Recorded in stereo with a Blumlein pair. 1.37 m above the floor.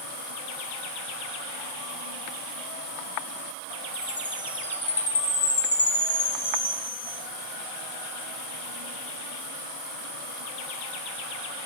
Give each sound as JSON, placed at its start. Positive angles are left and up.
{"t": 3.9, "sound": "a chime", "azimuth_deg": 60, "distance_m": 9.5}